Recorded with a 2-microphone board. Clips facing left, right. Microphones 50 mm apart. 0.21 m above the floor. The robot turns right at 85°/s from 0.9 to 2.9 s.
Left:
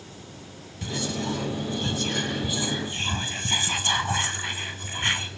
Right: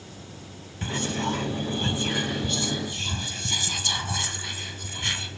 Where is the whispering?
125° right, 1.6 m; by 5.3 s 45° left, 1.6 m.